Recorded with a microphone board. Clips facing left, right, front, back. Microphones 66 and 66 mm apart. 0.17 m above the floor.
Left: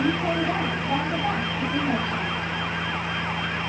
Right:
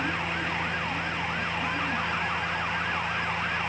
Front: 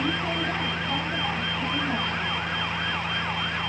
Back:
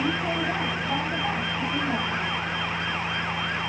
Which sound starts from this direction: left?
A vehicle, at 0.0 s.